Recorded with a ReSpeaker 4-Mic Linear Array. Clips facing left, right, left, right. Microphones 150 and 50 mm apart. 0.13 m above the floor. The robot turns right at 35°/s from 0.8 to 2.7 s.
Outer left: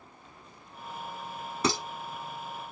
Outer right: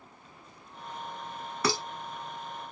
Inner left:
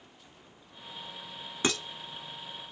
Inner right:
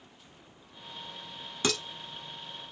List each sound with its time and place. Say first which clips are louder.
1.6 s dishes clattering: outer left 1 dB, inner left 1 dB; 25° left (ahead or behind), 1.1 m; by 1.8 s 20° left (ahead or behind), 1.1 m